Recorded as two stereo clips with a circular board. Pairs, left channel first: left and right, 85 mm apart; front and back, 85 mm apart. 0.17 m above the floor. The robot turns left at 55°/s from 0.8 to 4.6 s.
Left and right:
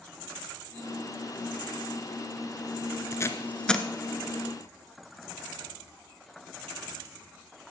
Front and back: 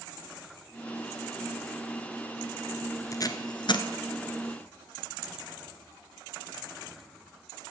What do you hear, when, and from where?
3.1 s tape being pulled: 45° left, 1.0 m; by 3.9 s straight ahead, 1.0 m